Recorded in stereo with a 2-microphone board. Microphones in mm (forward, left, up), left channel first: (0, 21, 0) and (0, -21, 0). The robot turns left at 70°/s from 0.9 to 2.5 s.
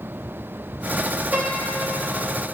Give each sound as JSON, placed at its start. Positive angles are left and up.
{"t": 1.3, "sound": "a piano", "azimuth_deg": -125, "distance_m": 2.5}